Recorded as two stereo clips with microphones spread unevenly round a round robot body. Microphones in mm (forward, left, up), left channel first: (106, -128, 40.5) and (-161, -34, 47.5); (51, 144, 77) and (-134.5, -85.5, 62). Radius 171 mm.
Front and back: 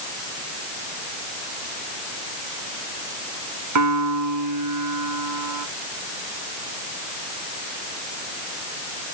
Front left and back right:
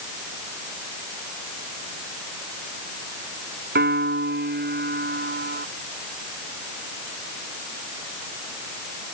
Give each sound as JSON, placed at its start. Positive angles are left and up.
{"t": 3.8, "sound": "a piano", "azimuth_deg": 175}